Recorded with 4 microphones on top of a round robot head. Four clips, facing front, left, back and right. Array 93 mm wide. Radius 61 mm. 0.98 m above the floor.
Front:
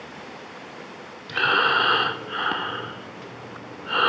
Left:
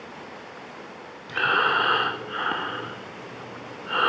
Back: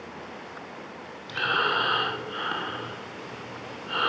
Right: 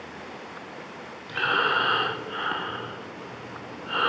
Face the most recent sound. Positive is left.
turn(degrees=30)